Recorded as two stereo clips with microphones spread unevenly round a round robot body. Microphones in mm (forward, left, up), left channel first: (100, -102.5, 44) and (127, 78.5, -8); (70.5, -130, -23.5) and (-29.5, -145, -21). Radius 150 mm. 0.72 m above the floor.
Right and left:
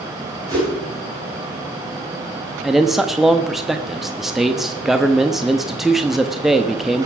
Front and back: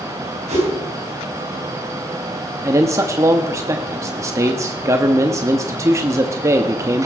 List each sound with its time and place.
0.5 s a whoosh: 160° left, 4.5 m
2.6 s a man speaking: 145° left, 0.8 m